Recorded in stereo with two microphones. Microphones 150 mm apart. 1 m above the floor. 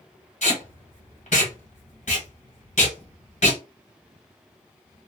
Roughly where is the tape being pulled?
Left.